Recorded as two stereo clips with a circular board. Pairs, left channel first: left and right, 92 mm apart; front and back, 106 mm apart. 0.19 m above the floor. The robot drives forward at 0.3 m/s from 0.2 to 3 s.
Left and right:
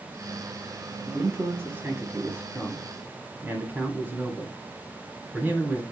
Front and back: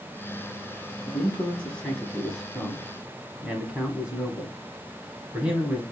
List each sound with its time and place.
1.1 s a man speaking: 45° right, 1.2 m; by 5.8 s 115° right, 1.2 m